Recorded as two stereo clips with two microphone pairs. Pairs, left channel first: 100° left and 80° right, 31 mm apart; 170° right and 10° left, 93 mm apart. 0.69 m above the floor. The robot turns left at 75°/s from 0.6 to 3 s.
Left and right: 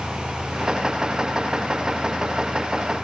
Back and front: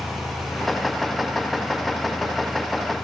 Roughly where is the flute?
No flute in this recording.